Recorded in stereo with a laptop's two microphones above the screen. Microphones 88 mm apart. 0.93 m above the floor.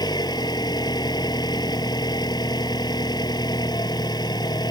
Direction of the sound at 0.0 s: 50° left (ahead or behind).